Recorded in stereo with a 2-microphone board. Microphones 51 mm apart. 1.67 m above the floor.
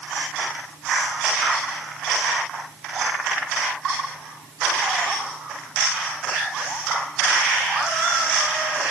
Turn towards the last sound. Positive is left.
No sound to turn to.